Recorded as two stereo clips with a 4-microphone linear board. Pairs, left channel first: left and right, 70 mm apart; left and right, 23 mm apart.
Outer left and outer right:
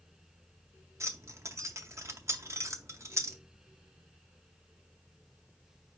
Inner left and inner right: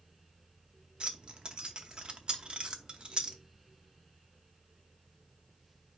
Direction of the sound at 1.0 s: 45° right (ahead or behind).